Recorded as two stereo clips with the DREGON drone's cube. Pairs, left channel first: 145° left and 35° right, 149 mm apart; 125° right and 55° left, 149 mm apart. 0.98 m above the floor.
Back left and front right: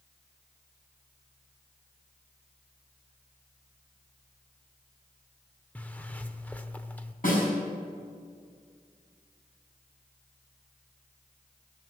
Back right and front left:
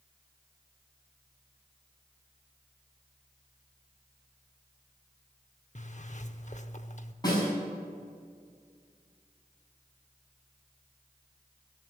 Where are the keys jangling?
No keys jangling in this recording.